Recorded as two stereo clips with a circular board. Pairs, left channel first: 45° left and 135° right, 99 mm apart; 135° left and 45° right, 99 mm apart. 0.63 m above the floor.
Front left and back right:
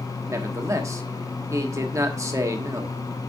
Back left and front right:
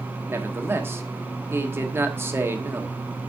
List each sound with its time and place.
0.3 s a man speaking: 95° right, 1.3 m